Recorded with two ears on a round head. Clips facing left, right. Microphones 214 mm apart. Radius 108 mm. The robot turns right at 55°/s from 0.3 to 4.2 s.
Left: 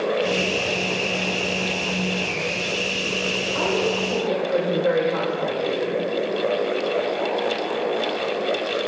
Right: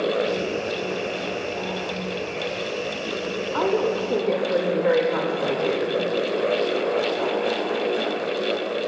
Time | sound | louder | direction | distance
3.5 | a woman speaking | right 2 dB | 90° right | 1.9 m